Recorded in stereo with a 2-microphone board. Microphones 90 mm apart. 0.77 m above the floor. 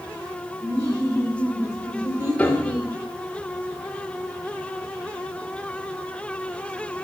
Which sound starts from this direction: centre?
A piano, at 2.4 s.